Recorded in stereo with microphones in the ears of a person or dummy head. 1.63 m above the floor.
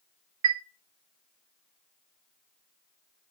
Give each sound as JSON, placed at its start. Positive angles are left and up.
{"t": 0.4, "sound": "a chime", "side_deg": -80, "distance_m": 0.5}